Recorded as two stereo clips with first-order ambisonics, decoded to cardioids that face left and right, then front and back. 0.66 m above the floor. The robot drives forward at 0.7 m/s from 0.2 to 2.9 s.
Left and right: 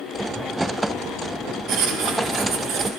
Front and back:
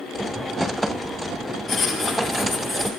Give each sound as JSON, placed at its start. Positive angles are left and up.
{"t": 1.7, "sound": "writing", "azimuth_deg": -70, "distance_m": 1.5}